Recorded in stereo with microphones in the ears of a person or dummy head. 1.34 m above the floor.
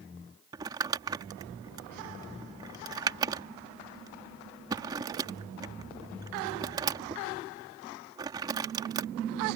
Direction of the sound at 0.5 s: 20° right (ahead or behind).